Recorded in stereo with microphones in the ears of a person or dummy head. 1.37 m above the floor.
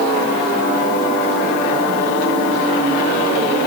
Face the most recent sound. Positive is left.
No sound to turn to.